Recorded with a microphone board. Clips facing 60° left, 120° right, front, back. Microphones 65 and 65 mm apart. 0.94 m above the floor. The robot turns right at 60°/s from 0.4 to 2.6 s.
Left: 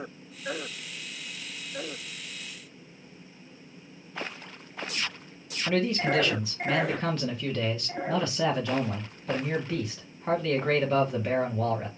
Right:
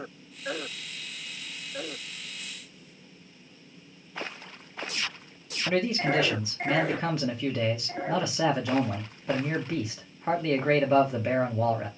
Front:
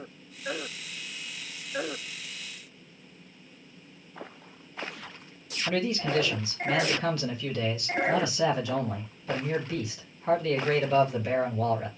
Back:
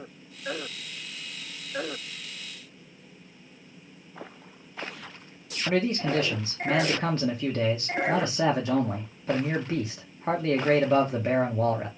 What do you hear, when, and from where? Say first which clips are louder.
5.7 s a man speaking: even, back 3 dB; 165° left, 0.8 m